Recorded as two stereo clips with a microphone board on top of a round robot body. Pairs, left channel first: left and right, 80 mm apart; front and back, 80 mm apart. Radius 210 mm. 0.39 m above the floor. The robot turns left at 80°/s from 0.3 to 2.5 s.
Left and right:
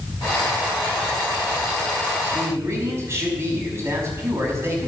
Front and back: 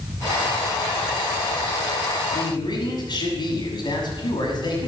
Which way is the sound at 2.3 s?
15° right.